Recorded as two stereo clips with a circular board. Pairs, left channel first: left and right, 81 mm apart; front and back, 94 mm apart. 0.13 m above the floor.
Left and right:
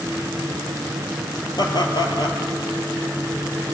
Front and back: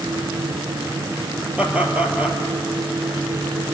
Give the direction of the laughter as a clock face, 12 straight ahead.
8 o'clock.